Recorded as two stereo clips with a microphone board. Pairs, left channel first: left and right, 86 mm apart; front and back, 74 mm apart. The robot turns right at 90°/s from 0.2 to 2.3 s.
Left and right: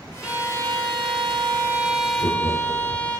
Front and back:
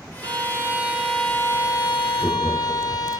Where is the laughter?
105° left, 2.5 m; by 3.1 s 110° left, 2.5 m.